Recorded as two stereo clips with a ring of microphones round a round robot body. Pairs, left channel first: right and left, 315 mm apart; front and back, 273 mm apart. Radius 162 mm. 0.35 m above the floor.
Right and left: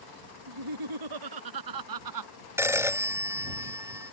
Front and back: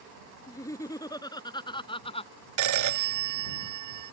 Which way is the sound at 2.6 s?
175° left.